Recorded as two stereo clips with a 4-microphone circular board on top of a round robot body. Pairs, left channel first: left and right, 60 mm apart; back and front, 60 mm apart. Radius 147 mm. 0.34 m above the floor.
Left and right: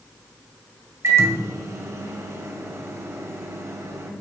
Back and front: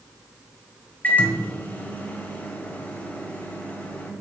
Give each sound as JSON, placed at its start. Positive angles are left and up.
{"t": 1.0, "sound": "a microwave", "azimuth_deg": -120, "distance_m": 2.0}